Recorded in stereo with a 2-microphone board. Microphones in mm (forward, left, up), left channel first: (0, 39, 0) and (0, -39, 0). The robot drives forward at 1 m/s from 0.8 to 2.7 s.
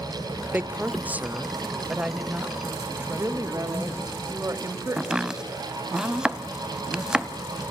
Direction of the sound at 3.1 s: 40° right (ahead or behind).